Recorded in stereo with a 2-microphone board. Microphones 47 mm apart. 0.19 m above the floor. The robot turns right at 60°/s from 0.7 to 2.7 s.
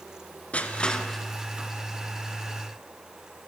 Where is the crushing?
30° left (ahead or behind), 2.5 m; by 1.7 s 25° right (ahead or behind), 2.5 m.